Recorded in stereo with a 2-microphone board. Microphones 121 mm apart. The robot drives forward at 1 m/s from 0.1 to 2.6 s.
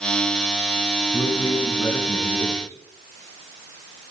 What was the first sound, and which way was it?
A man speaking, 35° left (ahead or behind).